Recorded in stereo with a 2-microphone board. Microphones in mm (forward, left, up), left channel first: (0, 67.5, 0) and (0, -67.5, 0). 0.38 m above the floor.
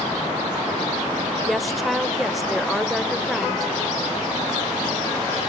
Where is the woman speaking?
Centre (ahead or behind), 1.2 m.